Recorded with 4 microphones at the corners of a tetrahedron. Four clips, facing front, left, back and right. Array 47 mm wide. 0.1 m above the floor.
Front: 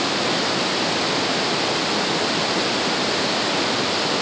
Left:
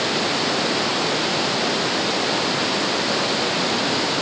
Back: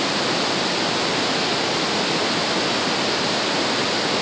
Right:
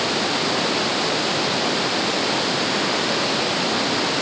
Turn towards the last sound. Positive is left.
No sound to turn to.